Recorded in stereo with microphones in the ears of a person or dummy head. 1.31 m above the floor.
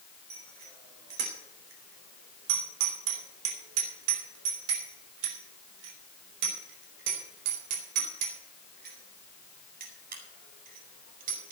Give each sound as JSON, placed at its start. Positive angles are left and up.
{"t": 0.3, "sound": "a bicycle bell", "side_deg": -55, "distance_m": 3.5}